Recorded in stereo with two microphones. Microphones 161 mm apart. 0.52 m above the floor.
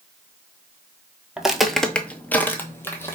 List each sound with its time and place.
1.4 s footsteps: 5° right (ahead or behind), 0.6 m; by 3.1 s 15° left (ahead or behind), 1.0 m